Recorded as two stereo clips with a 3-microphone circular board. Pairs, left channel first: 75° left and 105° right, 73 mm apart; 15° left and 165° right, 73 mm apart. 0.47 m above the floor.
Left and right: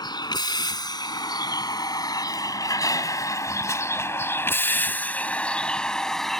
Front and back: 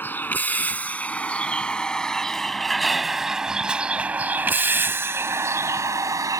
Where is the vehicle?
80° left; by 6.4 s 160° left.